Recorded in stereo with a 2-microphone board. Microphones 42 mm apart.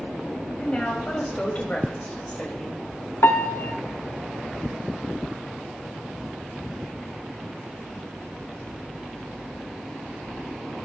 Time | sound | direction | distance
0.6 | a woman speaking | 30° left (ahead or behind) | 5 m
3.2 | a piano | 70° left (ahead or behind) | 0.9 m